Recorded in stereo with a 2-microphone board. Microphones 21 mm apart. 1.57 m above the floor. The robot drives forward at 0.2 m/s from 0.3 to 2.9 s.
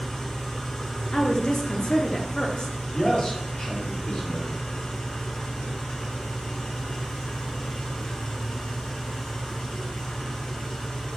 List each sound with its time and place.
0.0 s an engine running: 60° left (ahead or behind), 1.0 m; by 11.2 s 70° left (ahead or behind), 1.0 m
1.1 s a woman speaking: 45° left (ahead or behind), 0.6 m; by 2.8 s 55° left (ahead or behind), 0.5 m
2.9 s a man speaking: 60° left (ahead or behind), 1.0 m